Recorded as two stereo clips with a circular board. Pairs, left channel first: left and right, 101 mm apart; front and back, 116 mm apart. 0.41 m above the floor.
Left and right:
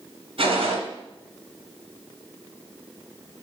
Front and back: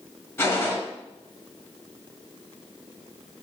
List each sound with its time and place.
0.4 s a gunshot: 65° right, 2.5 m